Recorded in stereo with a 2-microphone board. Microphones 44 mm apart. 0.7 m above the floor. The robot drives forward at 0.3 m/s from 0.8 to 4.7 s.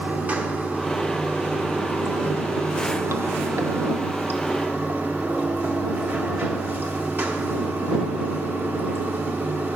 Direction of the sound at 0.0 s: 40° right (ahead or behind).